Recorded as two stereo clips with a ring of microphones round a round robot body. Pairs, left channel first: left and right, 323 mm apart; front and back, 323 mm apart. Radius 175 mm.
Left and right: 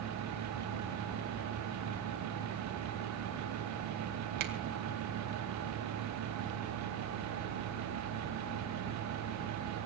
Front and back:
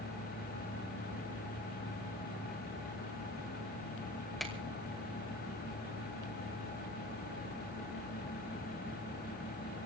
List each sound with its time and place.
4.4 s a finger snap: 90° right, 2 m